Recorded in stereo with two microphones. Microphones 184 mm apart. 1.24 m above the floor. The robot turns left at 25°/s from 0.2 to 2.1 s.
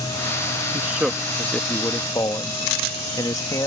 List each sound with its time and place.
0.7 s a man speaking: 15° right (ahead or behind); by 3.7 s 20° left (ahead or behind)